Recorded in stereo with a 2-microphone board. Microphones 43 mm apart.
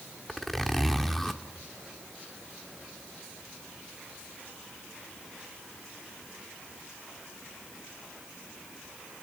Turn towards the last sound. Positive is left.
turn(degrees=5)  # may be behind; listen again after turning